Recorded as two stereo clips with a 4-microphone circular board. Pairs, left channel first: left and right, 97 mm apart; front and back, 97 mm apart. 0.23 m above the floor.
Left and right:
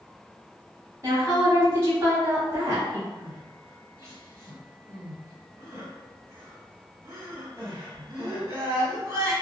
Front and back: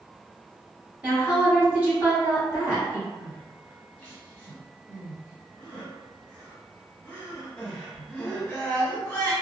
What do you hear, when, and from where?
1.0 s a woman speaking: 115° right, 1.2 m
3.2 s crying: 70° right, 1.6 m